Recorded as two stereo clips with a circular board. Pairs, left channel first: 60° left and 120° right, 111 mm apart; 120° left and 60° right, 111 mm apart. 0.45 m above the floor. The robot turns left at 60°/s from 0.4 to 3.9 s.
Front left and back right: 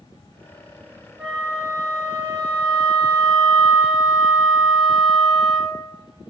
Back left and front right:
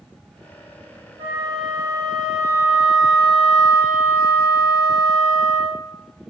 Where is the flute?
40° right, 0.8 m; by 5.8 s 160° left, 0.8 m.